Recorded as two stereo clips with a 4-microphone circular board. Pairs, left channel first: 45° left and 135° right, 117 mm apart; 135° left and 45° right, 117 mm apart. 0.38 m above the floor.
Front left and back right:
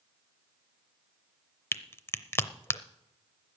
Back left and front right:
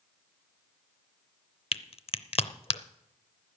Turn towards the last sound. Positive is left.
turn(degrees=110)